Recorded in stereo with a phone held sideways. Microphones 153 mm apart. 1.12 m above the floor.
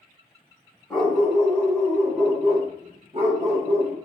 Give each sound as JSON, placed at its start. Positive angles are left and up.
{"t": 0.9, "sound": "a dog barking", "side_deg": 0, "distance_m": 1.3}